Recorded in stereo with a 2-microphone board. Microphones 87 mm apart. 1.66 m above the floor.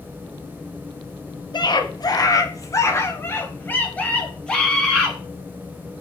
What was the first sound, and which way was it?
A scream, 60° left (ahead or behind).